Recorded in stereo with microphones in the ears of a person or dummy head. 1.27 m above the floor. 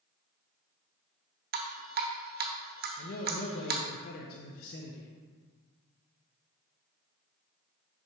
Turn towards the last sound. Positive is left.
turn(degrees=50)  # may be behind; listen again after turning